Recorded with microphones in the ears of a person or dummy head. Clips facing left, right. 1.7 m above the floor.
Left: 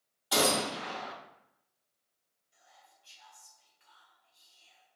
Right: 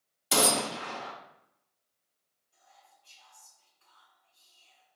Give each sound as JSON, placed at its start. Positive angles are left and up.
{"t": 0.3, "sound": "a gunshot", "side_deg": -30, "distance_m": 0.5}
{"t": 2.5, "sound": "whispering", "side_deg": 30, "distance_m": 1.4}